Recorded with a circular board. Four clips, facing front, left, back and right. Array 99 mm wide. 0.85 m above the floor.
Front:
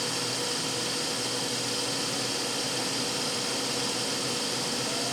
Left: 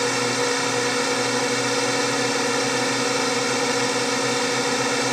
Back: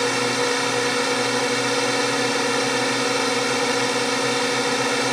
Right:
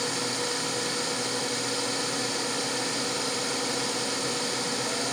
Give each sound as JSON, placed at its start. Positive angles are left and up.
{"t": 0.0, "sound": "a drone", "azimuth_deg": 140}